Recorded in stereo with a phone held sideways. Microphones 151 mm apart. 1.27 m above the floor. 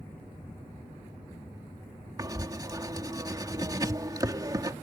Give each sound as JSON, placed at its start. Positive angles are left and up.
{"t": 2.2, "sound": "writing", "side_deg": -25}